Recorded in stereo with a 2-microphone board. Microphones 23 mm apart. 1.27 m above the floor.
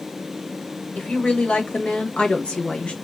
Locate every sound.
0.9 s a woman speaking: 85° left, 2 m; by 2.9 s 65° left (ahead or behind), 1.4 m